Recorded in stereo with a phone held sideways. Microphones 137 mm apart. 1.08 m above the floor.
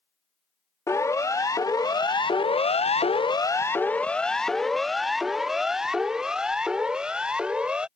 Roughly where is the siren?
Left.